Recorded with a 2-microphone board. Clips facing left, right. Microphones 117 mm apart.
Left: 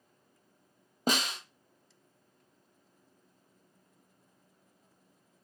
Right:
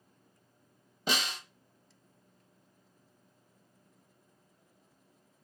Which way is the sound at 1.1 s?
45° left (ahead or behind).